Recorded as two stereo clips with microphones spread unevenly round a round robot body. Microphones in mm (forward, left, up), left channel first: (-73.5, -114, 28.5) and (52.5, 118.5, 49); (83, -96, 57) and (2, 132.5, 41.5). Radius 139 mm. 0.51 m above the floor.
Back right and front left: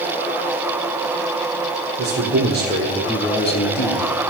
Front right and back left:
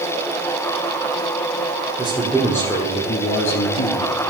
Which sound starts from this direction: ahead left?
A man speaking, at 2.0 s.